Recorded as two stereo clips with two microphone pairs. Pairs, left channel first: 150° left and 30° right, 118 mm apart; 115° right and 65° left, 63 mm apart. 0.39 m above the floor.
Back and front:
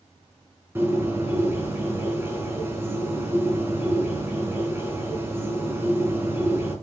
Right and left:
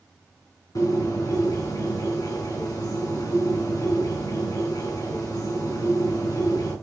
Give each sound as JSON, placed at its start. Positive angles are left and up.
{"t": 0.8, "sound": "a bird", "azimuth_deg": -95, "distance_m": 4.0}